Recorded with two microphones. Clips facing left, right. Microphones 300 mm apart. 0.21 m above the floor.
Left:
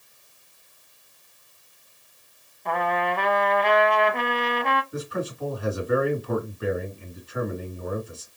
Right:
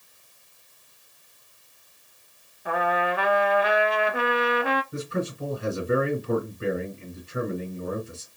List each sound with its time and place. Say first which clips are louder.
2.6 s a trumpet: right 1 dB; 10° right (ahead or behind), 0.5 m
4.9 s a man speaking: right 1 dB; 30° right (ahead or behind), 1.7 m